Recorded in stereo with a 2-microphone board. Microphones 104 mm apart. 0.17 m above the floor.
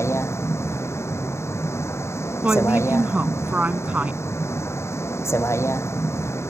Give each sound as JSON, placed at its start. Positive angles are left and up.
{"t": 0.0, "sound": "a vehicle", "side_deg": 25}
{"t": 2.4, "sound": "a woman speaking", "side_deg": -15}